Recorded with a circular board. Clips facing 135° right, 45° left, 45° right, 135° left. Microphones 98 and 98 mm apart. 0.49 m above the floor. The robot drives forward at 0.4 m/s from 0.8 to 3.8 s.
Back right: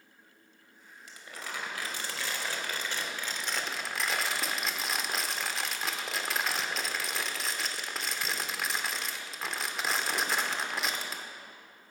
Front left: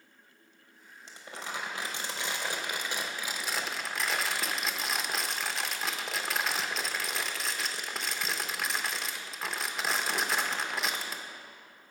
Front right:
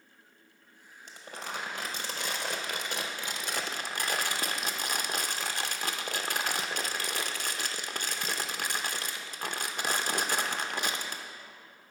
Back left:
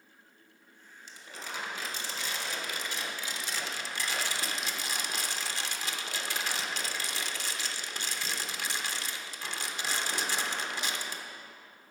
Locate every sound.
1.1 s crumpling: 15° right, 1.6 m; by 11.2 s 45° right, 0.7 m